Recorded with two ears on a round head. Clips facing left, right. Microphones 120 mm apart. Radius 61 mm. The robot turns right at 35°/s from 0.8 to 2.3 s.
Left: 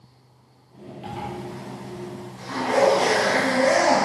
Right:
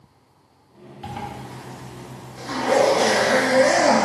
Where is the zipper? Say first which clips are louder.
Even; 120° right, 2.5 m; by 4.0 s 80° right, 2.5 m.